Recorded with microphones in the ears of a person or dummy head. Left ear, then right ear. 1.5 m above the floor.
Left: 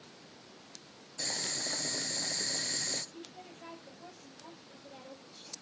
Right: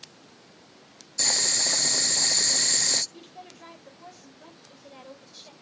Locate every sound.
1.2 s boiling: 30° right (ahead or behind), 0.7 m
3.1 s a woman speaking: 40° right (ahead or behind), 4 m